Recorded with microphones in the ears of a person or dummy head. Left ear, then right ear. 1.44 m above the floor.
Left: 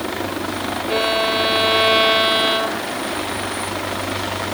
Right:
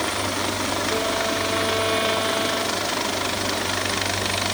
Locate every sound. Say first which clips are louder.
0.9 s a violin: left 9 dB; 55° left (ahead or behind)